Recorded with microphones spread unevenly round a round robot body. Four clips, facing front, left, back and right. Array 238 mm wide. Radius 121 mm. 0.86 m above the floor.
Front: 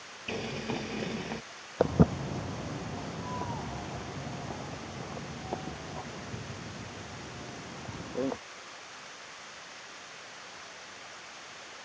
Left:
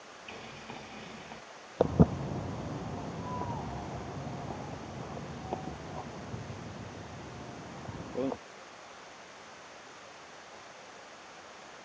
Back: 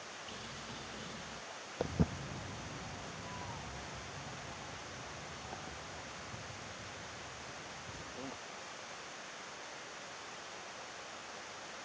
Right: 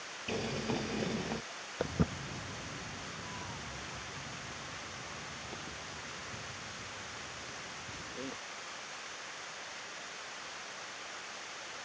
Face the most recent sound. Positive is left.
turn(degrees=35)